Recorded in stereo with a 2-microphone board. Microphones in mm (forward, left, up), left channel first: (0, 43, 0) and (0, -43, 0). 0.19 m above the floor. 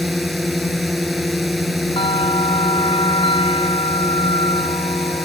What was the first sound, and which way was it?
A drone, centre (ahead or behind).